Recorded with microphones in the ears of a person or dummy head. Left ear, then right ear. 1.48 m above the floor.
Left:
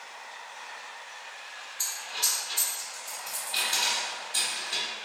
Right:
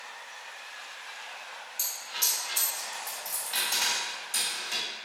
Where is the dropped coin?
40° right (ahead or behind), 1.5 m.